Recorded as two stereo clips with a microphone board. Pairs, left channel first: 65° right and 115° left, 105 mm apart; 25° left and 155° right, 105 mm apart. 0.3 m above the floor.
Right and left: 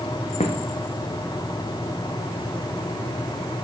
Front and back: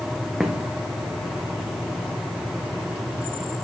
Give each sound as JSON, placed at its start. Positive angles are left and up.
{"t": 0.4, "sound": "footsteps", "azimuth_deg": -75, "distance_m": 1.2}